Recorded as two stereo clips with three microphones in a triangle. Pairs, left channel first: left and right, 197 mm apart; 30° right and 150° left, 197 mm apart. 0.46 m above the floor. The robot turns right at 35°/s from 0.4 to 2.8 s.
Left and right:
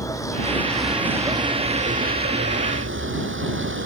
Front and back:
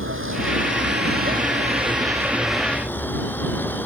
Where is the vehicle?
165° left; by 3.9 s 110° right.